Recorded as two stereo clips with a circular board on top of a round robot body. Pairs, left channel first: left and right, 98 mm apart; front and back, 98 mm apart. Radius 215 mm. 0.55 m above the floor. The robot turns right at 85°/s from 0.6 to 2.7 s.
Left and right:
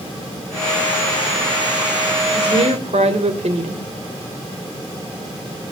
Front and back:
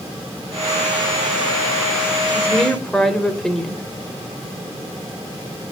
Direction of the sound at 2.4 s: 115° right.